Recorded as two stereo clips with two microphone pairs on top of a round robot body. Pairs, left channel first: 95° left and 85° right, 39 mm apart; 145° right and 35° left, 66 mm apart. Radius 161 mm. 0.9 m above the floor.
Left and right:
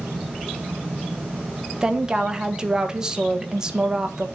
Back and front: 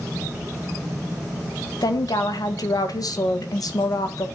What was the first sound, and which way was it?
A woman speaking, 155° right.